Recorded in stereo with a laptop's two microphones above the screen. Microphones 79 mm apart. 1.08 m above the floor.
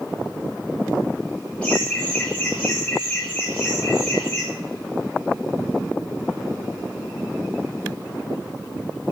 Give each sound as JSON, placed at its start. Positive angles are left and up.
{"t": 1.6, "sound": "laughter", "side_deg": 15, "distance_m": 1.7}